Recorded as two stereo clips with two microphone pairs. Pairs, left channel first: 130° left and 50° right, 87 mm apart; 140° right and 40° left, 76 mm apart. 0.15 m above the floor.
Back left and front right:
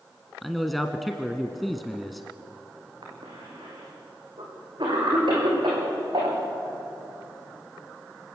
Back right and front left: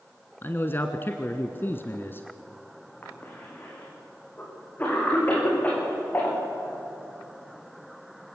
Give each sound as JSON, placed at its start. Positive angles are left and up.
{"t": 0.4, "sound": "a man speaking", "azimuth_deg": -145, "distance_m": 1.3}
{"t": 3.0, "sound": "a cough", "azimuth_deg": -75, "distance_m": 8.0}